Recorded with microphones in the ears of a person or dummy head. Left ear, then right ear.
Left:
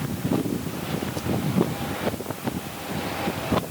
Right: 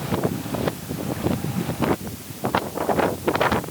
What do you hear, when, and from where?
Only background noise.